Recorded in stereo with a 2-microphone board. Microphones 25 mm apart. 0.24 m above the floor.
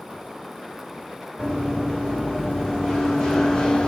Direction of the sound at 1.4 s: Centre (ahead or behind).